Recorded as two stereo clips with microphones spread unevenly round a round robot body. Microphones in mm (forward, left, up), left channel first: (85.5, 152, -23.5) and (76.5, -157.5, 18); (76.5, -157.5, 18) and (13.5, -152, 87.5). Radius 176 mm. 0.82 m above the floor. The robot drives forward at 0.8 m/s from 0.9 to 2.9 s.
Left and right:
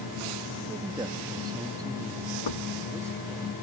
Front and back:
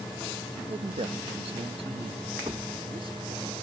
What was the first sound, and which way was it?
A man speaking, 170° right.